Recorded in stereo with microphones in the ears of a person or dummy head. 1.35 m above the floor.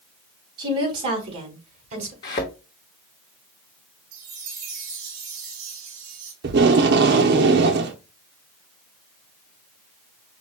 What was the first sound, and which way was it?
A woman speaking, 25° right (ahead or behind).